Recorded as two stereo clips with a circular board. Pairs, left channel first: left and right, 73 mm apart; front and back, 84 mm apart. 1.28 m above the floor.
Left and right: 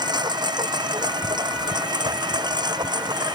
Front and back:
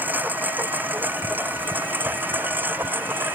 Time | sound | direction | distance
0.0 | a lawn mower | 110° right | ?